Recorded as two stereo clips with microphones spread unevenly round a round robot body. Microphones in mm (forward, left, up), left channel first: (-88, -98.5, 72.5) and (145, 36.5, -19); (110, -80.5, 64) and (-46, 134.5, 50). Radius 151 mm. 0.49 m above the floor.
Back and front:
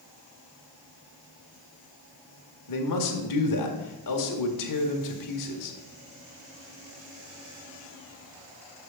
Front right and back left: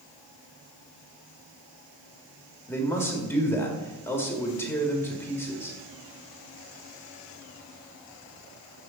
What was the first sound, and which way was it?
A man speaking, 135° right.